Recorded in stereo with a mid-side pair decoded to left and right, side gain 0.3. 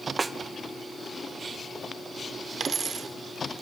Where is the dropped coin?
65° right, 1.9 m.